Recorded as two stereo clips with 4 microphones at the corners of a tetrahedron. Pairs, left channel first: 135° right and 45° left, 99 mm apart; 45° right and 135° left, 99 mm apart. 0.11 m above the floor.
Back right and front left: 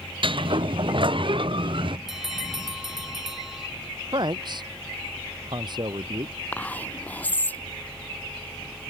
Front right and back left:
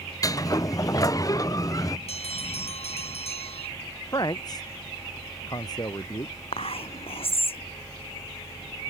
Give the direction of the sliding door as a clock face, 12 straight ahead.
12 o'clock.